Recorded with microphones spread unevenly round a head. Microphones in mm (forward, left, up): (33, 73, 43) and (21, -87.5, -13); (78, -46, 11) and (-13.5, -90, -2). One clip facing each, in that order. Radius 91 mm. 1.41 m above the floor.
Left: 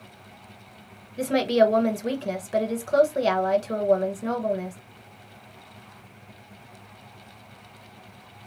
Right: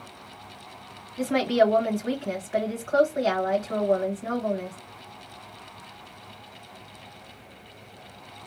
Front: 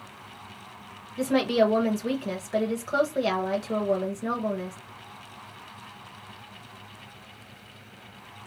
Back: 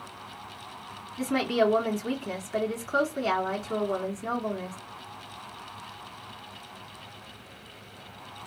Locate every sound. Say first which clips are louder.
1.2 s a woman speaking: left 1 dB, front 3 dB; 45° left, 1.0 m